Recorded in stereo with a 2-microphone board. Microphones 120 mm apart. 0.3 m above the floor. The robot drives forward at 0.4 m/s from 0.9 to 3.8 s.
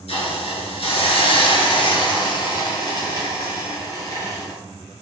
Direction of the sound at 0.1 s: 60° left (ahead or behind).